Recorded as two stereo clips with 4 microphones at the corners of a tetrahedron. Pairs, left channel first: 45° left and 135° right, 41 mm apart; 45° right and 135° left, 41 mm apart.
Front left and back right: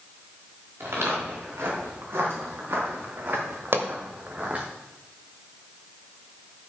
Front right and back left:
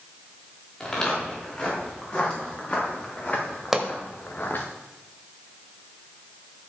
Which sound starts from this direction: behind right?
A pop, at 3.7 s.